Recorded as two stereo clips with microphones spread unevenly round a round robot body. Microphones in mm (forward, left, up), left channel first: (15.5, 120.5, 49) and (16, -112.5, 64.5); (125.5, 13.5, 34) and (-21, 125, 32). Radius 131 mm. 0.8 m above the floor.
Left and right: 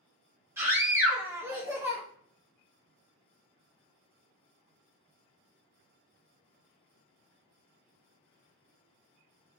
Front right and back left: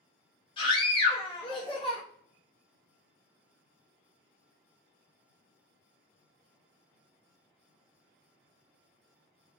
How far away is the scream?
About 0.7 m.